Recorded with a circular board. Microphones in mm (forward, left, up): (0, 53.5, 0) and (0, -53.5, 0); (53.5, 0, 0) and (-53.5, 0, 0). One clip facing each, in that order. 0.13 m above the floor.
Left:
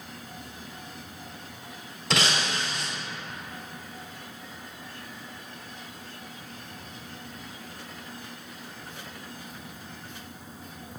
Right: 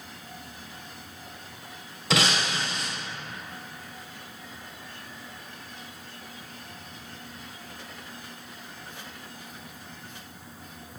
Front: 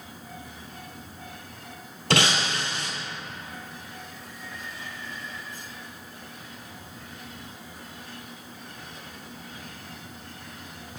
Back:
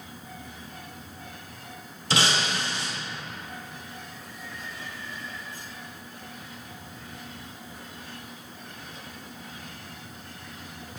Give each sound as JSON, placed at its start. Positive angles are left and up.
{"t": 2.1, "sound": "breaking glass", "azimuth_deg": 0, "distance_m": 1.3}